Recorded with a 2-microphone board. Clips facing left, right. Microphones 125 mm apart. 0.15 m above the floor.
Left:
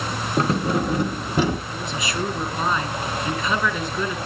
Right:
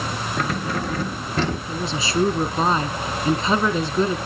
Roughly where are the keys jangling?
Left.